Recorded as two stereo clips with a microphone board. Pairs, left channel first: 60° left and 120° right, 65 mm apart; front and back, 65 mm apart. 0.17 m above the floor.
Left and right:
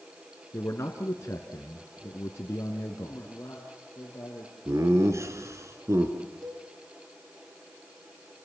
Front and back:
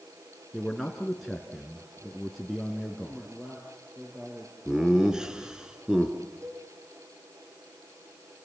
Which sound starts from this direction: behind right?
A cowbell, at 6.4 s.